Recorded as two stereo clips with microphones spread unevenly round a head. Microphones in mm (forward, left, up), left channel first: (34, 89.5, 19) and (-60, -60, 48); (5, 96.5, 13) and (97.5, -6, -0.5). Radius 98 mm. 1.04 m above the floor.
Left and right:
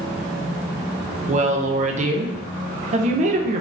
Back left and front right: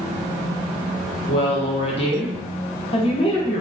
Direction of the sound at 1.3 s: 170° right.